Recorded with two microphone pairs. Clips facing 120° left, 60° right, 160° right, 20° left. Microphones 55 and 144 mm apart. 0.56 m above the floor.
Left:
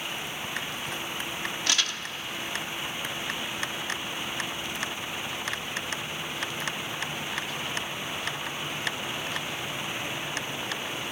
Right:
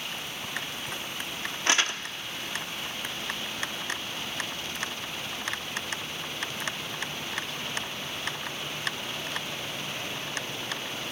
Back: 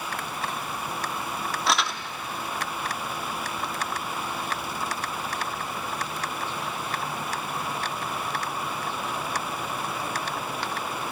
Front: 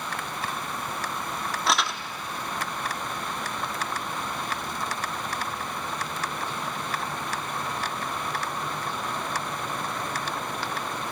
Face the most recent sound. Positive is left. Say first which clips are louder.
# right 4 dB, even
turn(degrees=-70)